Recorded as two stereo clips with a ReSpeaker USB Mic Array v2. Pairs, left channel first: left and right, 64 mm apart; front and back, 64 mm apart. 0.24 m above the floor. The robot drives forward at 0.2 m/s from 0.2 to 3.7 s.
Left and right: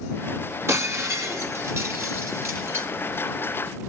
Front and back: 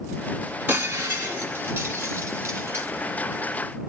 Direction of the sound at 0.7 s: 125° right.